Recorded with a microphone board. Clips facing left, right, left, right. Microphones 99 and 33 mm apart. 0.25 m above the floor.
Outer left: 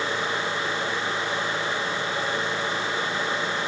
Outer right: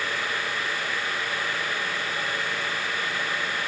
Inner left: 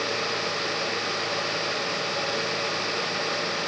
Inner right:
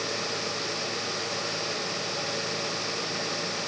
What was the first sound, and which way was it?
Only background noise.